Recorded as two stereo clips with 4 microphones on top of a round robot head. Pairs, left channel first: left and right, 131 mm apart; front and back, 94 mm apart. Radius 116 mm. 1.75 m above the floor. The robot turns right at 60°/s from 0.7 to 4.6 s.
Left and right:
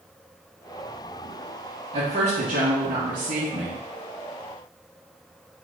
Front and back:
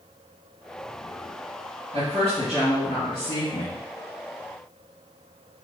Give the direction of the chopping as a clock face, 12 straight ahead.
I don't hear chopping.